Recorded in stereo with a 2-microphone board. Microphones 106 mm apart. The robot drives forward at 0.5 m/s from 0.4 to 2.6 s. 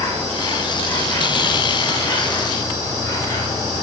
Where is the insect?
25° left (ahead or behind), 6.5 m; by 3.8 s 30° left (ahead or behind), 5.5 m.